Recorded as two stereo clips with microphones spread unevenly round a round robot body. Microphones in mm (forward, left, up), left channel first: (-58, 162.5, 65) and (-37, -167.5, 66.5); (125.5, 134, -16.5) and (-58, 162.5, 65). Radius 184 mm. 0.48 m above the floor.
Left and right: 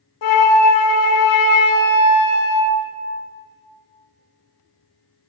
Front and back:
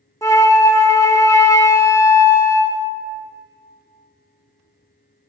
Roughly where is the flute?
Left.